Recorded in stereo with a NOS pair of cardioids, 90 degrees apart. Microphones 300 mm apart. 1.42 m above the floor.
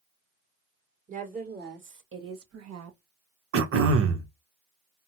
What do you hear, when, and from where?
1.1 s a woman speaking: 25° right, 2.0 m; by 3.0 s 65° right, 1.6 m
3.5 s throat clearing: 50° right, 1.0 m